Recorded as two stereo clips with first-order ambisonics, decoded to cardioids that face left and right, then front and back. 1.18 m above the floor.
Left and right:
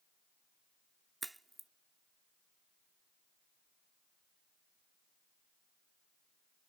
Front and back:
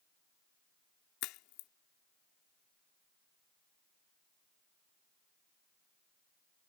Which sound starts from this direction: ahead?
A crack, at 1.2 s.